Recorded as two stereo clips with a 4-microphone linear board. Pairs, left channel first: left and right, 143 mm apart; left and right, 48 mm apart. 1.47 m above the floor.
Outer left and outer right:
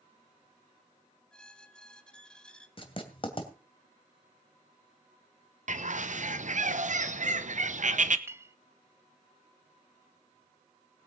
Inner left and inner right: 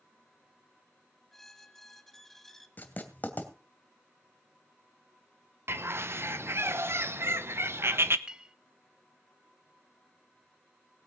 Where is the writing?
40° left (ahead or behind), 2.5 m.